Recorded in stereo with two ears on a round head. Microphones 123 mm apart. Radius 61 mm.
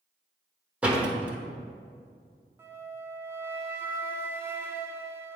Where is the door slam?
10° right (ahead or behind), 1.0 m.